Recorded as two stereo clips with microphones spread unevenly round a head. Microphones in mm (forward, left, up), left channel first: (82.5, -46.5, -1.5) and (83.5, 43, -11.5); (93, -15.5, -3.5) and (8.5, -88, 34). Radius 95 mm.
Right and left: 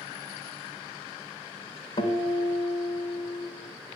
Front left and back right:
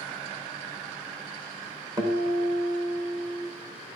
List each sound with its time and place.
2.0 s a guitar: 100° right, 1.1 m